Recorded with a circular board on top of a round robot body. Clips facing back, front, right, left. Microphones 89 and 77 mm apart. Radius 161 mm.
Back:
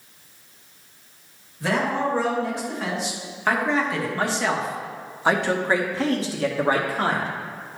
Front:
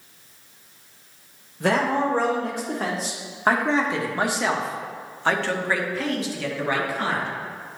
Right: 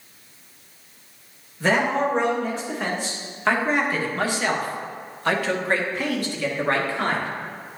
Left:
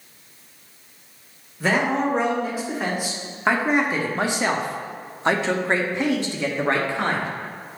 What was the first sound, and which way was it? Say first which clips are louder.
A man speaking: front 2 dB, even; 5° left.